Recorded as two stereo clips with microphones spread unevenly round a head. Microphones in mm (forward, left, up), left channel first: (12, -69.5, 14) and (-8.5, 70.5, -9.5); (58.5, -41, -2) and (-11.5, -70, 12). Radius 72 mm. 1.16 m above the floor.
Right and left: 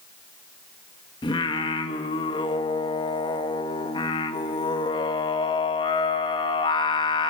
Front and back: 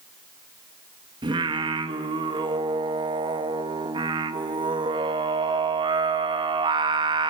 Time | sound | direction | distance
1.2 | singing | 145° right | 1.8 m